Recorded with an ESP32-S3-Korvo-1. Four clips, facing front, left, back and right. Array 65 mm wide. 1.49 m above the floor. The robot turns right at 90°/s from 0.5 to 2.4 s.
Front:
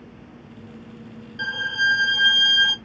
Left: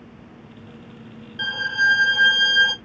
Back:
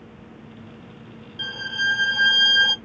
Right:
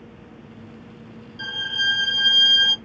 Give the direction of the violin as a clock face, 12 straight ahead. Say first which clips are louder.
Left 6 dB, front 3 dB; 10 o'clock.